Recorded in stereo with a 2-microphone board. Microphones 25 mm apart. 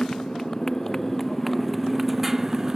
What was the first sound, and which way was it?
A motorcycle, 30° left (ahead or behind).